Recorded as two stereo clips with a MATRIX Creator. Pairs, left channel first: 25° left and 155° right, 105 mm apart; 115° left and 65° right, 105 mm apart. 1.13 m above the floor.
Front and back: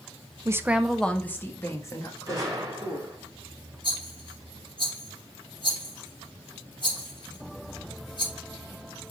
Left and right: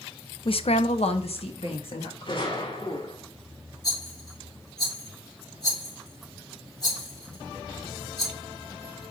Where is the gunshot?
145° left, 3 m.